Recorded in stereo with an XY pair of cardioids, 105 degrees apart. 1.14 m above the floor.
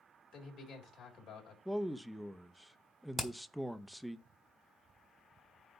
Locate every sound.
0.3 s a man speaking: 60° left, 4 m
1.6 s a man speaking: 5° right, 0.8 m
3.2 s hammering: 10° left, 1.9 m